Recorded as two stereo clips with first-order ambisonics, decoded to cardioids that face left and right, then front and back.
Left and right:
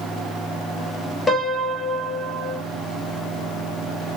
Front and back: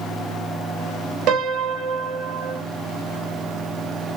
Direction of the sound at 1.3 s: 170° left.